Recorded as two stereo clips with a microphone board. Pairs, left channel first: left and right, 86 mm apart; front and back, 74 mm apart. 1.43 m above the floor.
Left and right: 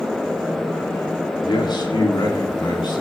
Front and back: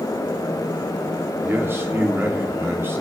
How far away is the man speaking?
About 4 m.